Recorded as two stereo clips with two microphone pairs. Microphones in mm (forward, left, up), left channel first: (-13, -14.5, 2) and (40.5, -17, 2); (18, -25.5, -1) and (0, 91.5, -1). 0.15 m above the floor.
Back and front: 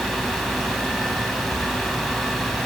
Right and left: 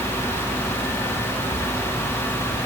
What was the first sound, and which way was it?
Only background noise.